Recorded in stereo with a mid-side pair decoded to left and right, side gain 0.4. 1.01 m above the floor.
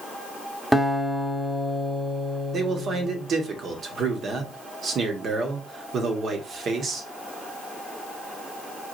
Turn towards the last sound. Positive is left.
turn(degrees=-60)